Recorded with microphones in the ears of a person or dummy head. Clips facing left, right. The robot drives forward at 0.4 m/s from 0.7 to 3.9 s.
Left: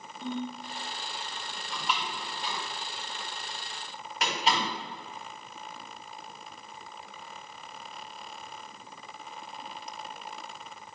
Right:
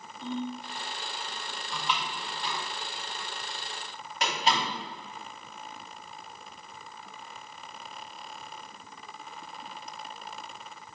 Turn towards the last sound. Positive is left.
turn(degrees=5)  # may be behind; listen again after turning